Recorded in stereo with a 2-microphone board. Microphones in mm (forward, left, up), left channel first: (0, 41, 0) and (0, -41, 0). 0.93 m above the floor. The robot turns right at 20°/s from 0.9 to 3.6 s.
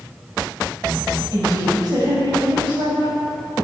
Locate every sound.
1.3 s a woman speaking: 140° right, 5.5 m; by 3.2 s 100° right, 5.5 m